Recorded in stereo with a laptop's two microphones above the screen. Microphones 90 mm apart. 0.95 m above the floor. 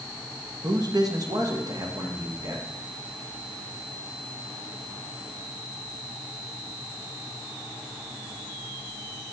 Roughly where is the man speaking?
Right.